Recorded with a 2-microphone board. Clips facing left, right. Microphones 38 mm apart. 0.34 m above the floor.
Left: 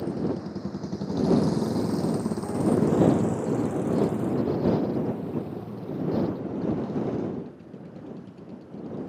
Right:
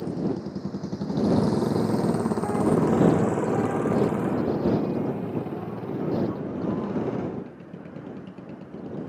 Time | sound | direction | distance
0.0 | a motorcycle | 15° left (ahead or behind) | ?